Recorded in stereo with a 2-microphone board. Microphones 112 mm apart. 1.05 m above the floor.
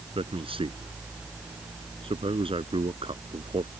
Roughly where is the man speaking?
Right.